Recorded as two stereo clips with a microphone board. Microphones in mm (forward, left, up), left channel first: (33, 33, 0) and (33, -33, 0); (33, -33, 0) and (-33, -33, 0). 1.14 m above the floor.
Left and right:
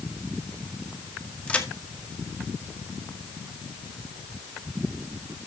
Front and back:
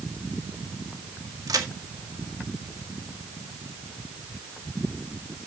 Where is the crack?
160° left, 1.7 m.